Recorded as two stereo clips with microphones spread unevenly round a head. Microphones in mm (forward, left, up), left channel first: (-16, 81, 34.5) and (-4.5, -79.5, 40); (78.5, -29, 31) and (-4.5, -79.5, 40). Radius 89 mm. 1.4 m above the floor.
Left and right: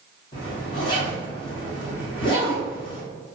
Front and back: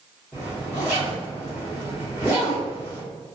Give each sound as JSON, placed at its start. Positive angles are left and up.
{"t": 0.3, "sound": "a zipper", "azimuth_deg": 125, "distance_m": 0.9}